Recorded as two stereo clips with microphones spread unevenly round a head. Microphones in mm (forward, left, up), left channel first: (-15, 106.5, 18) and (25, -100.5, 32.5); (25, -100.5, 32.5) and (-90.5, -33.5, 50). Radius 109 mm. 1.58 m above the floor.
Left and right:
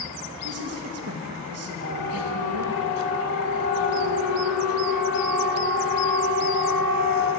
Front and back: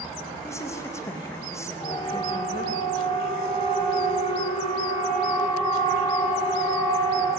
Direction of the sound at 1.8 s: 75° right.